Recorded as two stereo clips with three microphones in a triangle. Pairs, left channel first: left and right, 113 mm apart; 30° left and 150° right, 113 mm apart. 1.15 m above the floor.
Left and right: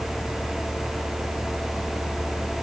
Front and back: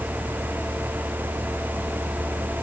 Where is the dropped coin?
No dropped coin in this recording.